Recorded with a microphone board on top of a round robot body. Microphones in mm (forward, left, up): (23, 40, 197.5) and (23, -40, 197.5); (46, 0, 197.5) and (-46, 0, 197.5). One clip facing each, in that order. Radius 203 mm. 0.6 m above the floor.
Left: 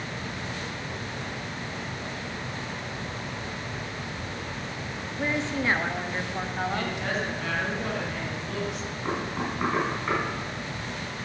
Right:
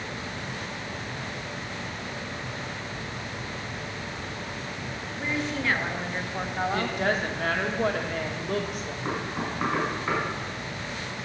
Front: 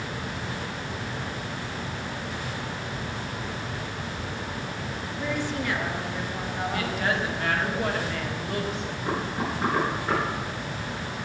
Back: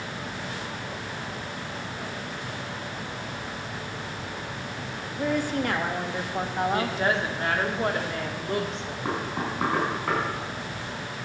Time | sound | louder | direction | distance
5.2 | a woman speaking | left 2 dB, back 4 dB | 140° left | 1.6 m
6.7 | a woman speaking | right 3 dB, even | 125° right | 1.9 m
9.1 | knocking | left 1 dB, even | 175° right | 4.5 m